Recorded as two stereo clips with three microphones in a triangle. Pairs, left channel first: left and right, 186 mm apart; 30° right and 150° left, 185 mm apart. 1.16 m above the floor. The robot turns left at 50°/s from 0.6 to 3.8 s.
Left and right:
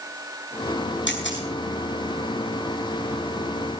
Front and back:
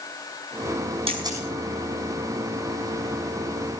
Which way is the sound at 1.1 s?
90° left.